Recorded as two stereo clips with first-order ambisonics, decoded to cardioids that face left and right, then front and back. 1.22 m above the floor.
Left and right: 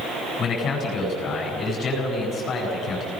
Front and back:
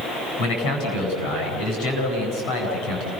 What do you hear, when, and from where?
0.4 s a man speaking: 30° left, 8.5 m